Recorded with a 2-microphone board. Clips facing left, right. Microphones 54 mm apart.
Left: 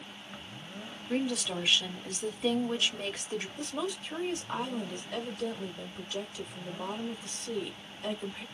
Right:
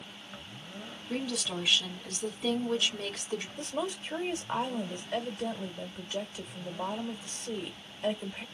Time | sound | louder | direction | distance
1.1 | a woman speaking | left 3 dB | 15° left (ahead or behind) | 1.6 m
3.6 | a woman speaking | right 1 dB | 25° right (ahead or behind) | 1.5 m